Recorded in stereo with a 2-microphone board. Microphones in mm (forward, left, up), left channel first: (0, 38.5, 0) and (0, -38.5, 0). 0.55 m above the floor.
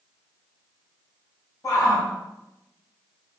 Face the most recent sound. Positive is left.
turn(degrees=45)  # may be behind; listen again after turning